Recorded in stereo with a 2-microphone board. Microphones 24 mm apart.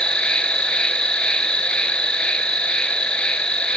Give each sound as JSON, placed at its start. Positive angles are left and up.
{"t": 0.0, "sound": "an insect", "side_deg": 55, "distance_m": 0.7}